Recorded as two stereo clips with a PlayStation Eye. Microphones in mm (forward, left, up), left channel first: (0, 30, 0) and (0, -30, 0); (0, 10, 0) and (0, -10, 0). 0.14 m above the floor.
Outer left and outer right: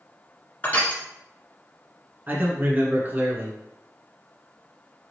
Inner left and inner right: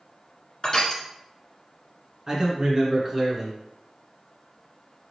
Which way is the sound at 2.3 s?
30° right (ahead or behind).